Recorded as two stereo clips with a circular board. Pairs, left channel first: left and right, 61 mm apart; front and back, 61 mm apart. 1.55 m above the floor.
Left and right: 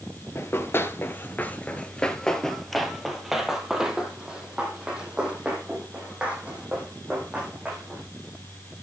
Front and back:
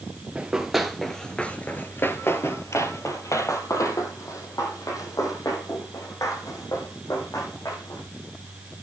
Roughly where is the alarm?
No alarm in this recording.